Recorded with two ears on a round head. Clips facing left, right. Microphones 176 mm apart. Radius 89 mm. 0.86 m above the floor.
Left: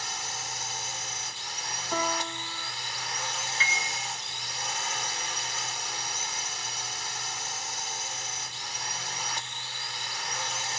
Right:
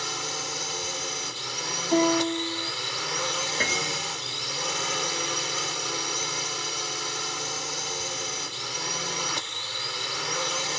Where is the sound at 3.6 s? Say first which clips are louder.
Right 6 dB; 40° right (ahead or behind).